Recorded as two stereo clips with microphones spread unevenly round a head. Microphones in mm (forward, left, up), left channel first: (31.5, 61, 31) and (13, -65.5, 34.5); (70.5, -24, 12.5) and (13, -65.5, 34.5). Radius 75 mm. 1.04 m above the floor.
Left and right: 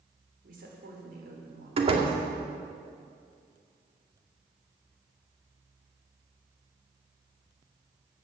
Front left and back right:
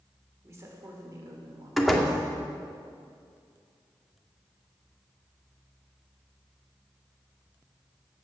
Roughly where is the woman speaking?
Right.